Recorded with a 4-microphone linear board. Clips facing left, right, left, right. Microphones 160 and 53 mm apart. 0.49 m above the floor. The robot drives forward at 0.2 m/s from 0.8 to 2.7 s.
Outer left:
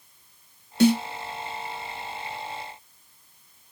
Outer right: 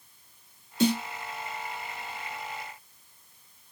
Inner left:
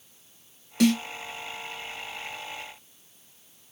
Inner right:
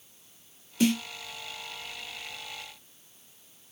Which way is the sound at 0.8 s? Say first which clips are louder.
Outer left 6 dB, inner left 3 dB; 70° left (ahead or behind).